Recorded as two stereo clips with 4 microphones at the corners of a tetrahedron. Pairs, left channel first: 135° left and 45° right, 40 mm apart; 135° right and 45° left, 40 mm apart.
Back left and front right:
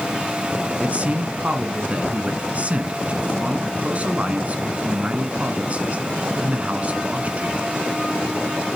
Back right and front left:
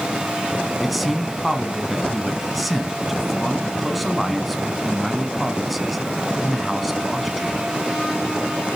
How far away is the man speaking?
About 1.5 m.